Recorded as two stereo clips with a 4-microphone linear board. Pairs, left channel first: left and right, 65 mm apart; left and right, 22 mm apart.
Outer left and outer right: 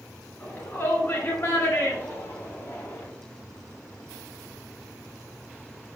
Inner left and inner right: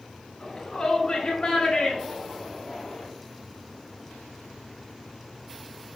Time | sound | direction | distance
0.4 | a shout | 30° left (ahead or behind) | 3 m